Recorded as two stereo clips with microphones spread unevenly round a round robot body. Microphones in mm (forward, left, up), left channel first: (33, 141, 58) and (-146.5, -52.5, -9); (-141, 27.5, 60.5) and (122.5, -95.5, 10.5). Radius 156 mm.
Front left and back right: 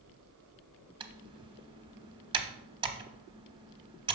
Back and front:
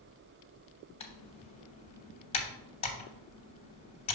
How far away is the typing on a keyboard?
About 0.7 m.